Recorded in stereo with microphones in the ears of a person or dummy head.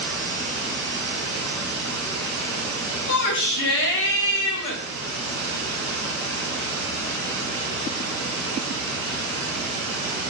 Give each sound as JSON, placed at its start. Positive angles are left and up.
{"t": 0.0, "sound": "running water", "side_deg": 20, "distance_m": 1.6}
{"t": 3.1, "sound": "a shout", "side_deg": 60, "distance_m": 1.5}